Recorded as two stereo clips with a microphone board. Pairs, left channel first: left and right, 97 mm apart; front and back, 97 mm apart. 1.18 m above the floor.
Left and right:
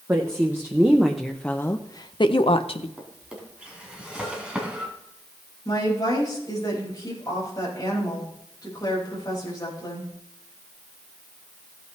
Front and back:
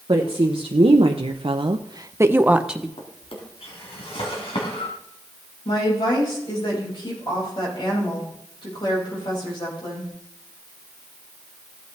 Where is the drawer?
10° right, 2.5 m.